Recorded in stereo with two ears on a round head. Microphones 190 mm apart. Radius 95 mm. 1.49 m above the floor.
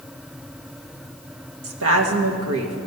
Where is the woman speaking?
75° right (ahead or behind), 1.8 m.